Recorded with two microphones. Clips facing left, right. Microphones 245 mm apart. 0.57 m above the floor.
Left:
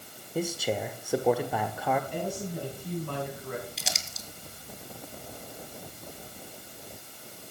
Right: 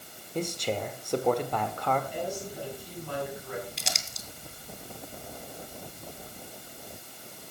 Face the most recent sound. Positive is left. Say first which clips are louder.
# even
turn(degrees=0)  # may be behind; listen again after turning